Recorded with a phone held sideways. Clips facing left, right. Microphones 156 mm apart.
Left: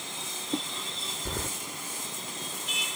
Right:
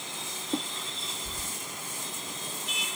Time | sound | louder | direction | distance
1.2 | keys jangling | left 7 dB | 80° left | ?